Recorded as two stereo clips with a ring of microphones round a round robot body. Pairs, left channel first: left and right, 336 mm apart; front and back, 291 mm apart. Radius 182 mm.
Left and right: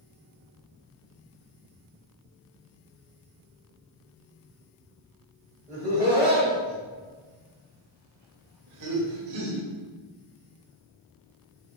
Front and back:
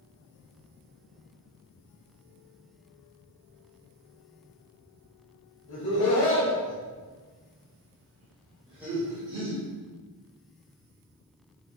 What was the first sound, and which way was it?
Laughter, 10° right.